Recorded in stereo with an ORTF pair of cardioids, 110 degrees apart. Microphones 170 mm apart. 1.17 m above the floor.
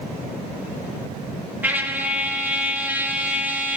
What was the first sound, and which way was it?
A trumpet, 10° right.